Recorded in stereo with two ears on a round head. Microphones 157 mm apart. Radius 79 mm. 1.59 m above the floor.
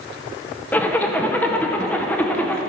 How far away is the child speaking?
No child speaking in this recording.